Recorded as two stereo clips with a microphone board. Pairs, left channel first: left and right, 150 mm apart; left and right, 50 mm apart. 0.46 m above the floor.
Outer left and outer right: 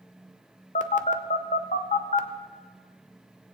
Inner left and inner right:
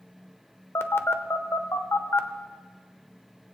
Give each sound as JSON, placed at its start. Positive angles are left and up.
{"t": 0.8, "sound": "a phone buzzing", "side_deg": 55, "distance_m": 0.7}